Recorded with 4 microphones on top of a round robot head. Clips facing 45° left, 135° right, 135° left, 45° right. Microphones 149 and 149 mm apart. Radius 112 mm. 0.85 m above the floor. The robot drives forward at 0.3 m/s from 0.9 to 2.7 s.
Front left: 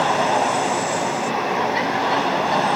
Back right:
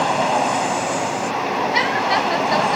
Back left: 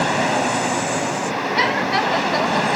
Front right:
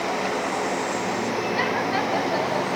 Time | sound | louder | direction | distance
0.0 | an aircraft | even, back left 6 dB | 140° left | ?